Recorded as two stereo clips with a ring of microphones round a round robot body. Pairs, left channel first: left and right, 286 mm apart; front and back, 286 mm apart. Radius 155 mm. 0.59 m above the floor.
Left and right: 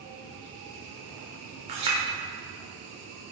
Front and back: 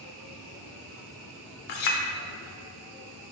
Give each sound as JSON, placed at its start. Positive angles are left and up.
{"t": 1.7, "sound": "a clink", "azimuth_deg": -15, "distance_m": 0.8}